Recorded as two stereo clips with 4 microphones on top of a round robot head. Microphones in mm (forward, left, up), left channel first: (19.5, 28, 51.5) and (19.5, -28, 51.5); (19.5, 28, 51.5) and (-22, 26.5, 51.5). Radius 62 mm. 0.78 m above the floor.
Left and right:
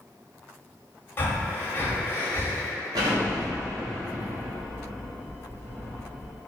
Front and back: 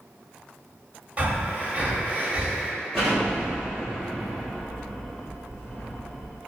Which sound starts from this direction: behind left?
Breathing, at 1.2 s.